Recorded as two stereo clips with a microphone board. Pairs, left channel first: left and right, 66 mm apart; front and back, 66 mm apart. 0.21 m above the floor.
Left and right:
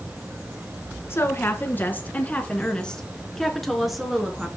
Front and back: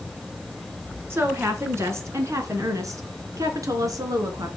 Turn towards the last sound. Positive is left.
turn(degrees=-170)